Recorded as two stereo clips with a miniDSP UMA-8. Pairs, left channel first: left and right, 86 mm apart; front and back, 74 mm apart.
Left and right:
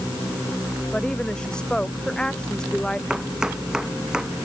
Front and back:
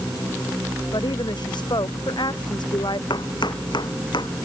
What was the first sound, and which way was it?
A woman speaking, 10° left.